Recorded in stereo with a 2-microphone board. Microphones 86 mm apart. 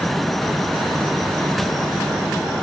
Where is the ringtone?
No ringtone in this recording.